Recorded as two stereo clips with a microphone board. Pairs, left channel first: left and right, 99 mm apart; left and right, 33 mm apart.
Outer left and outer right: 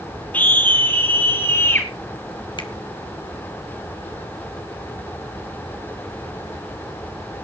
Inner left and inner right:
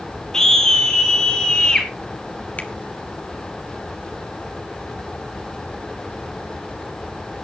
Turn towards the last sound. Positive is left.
turn(degrees=50)  # may be behind; listen again after turning